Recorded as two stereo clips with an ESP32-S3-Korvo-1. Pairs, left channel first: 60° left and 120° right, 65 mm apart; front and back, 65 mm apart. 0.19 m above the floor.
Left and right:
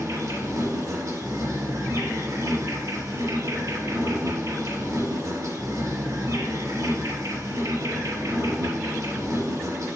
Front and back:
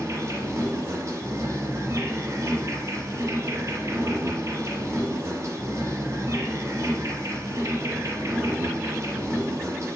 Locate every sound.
0.0 s an insect: 145° right, 3 m